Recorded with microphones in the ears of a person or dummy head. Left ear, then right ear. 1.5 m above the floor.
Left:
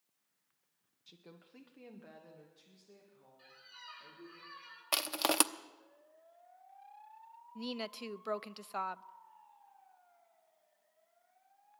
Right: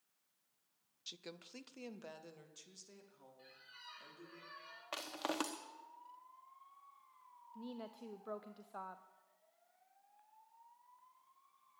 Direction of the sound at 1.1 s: 45° right (ahead or behind).